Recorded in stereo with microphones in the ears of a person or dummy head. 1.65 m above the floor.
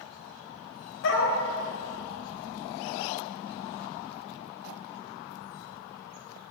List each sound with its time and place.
1.0 s a dog barking: 70° left (ahead or behind), 3 m